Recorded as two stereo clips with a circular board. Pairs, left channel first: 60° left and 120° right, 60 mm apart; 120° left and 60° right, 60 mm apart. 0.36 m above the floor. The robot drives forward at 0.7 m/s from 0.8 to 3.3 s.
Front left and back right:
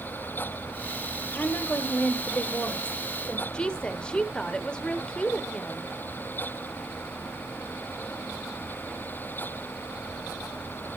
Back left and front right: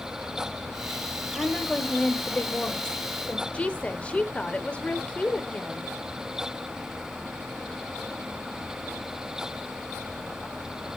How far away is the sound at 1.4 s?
About 2 m.